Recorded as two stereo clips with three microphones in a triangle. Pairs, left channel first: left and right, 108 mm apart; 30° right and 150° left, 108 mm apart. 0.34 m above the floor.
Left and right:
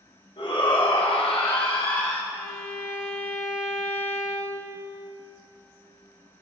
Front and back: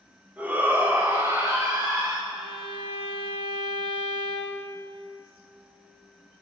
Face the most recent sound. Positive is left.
turn(degrees=150)